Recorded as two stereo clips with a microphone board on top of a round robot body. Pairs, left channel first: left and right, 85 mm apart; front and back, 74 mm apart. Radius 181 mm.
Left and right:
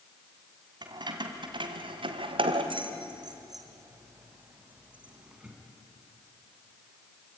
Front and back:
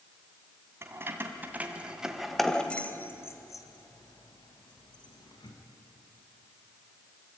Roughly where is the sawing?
I don't hear sawing.